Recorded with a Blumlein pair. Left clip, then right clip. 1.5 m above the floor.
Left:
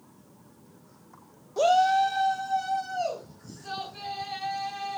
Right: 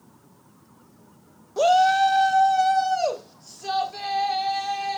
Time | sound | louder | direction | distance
1.6 | a shout | right 4 dB | 5° right | 1.1 m